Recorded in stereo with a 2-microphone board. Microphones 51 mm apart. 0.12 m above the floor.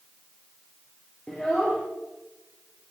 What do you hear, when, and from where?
1.3 s a child speaking: 20° left (ahead or behind), 2 m